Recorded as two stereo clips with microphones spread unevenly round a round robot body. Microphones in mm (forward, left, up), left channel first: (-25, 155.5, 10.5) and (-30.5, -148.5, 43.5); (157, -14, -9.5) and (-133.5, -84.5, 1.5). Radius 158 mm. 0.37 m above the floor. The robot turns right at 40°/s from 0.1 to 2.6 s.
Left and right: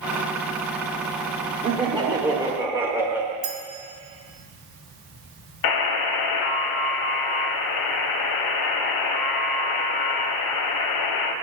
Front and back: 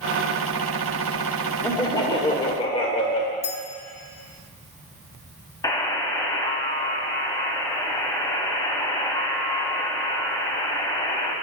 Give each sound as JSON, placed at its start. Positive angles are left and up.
{"t": 1.6, "sound": "laughter", "azimuth_deg": -40, "distance_m": 1.2}
{"t": 3.4, "sound": "a clink", "azimuth_deg": -50, "distance_m": 1.4}
{"t": 5.6, "sound": "a buzzer", "azimuth_deg": 95, "distance_m": 0.8}